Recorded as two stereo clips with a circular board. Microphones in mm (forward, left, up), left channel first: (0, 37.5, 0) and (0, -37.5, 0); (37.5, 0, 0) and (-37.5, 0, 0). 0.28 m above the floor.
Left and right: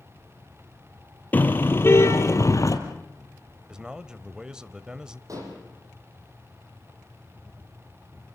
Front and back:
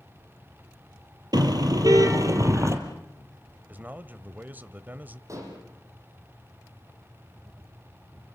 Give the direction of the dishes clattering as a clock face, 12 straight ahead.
4 o'clock.